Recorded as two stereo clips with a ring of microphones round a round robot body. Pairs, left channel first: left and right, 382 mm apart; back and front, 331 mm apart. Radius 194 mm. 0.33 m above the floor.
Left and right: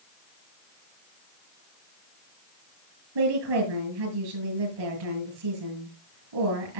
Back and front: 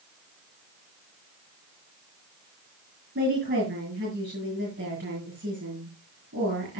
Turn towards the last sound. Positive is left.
turn(degrees=-70)